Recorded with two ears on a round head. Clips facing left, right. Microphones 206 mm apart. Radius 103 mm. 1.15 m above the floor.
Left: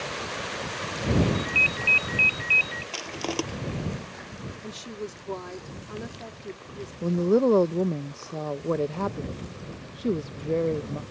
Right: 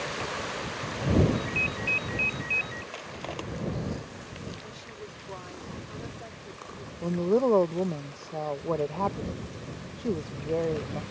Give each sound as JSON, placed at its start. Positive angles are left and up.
{"t": 1.3, "sound": "a ringtone", "side_deg": 75}
{"t": 2.9, "sound": "crushing", "side_deg": 65}
{"t": 4.6, "sound": "a woman speaking", "side_deg": 70}
{"t": 7.0, "sound": "a woman speaking", "side_deg": 25}